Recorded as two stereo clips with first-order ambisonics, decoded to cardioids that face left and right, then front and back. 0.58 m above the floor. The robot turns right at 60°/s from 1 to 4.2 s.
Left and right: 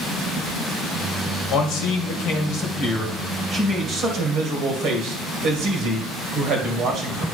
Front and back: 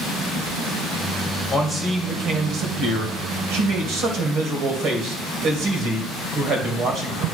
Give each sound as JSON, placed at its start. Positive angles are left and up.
{"t": 1.5, "sound": "a man speaking", "azimuth_deg": 65, "distance_m": 2.5}